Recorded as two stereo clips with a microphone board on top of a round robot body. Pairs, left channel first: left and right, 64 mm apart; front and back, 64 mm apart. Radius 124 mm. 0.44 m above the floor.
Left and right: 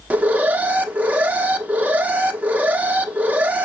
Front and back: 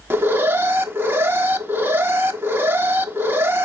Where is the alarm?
145° right, 1.3 m.